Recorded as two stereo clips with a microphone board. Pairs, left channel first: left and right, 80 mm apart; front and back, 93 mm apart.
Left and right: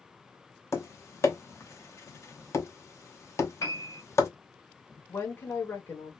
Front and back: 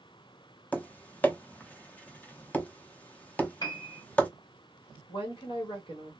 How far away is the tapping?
About 0.8 m.